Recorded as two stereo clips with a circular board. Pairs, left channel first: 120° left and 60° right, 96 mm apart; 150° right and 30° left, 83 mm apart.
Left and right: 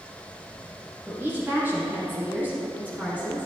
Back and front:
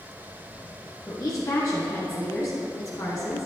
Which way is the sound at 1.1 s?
120° right.